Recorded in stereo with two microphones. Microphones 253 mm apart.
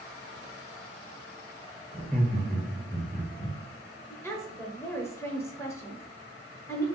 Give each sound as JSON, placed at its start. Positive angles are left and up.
{"t": 1.9, "sound": "laughter", "side_deg": 0, "distance_m": 1.5}
{"t": 4.1, "sound": "a woman speaking", "side_deg": 10, "distance_m": 0.9}